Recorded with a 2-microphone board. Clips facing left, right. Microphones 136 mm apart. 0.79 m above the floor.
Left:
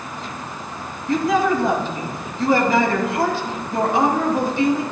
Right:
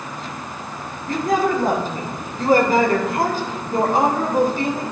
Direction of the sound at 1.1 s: 45° right (ahead or behind).